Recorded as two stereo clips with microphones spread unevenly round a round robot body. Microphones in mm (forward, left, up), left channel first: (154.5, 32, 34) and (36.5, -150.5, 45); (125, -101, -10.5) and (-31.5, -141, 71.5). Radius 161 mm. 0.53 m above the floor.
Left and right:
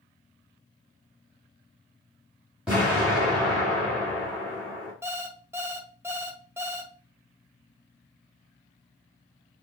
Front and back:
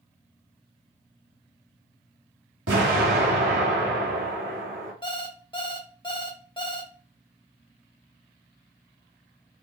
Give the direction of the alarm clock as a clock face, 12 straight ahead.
1 o'clock.